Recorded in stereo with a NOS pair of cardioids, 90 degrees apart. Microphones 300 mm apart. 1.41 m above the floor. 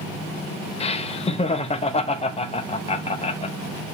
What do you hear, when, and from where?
0.8 s laughter: 20° left, 0.8 m